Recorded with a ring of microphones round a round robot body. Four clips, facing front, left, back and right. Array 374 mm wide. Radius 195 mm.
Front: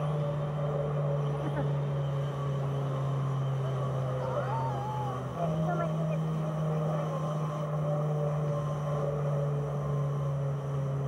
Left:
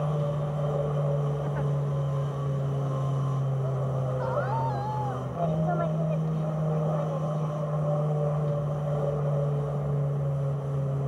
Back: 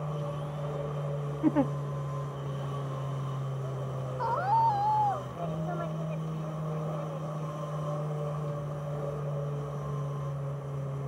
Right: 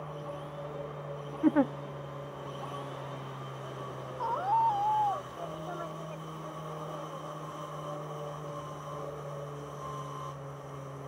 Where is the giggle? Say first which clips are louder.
Right 6 dB, back 7 dB; 130° right.